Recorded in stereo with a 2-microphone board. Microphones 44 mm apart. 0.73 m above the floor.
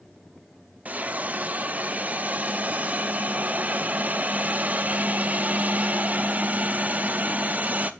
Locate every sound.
0.8 s a hiss: 35° right (ahead or behind), 0.5 m